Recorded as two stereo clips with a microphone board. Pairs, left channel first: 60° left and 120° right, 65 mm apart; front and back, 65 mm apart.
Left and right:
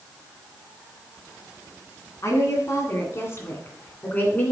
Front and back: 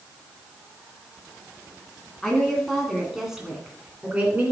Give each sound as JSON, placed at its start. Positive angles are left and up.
{"t": 2.2, "sound": "a woman speaking", "azimuth_deg": 80, "distance_m": 2.0}